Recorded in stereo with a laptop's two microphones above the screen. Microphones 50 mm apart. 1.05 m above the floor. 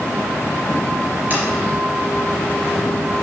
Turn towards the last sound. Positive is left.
turn(degrees=-30)  # may be behind; listen again after turning